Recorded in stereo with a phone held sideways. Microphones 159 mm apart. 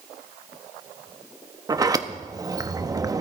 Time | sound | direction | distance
1.7 | a sliding door | 25° right (ahead or behind) | 0.6 m